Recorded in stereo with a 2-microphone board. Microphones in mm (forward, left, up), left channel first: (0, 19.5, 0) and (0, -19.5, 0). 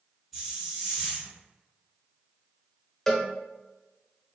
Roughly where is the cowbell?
Centre.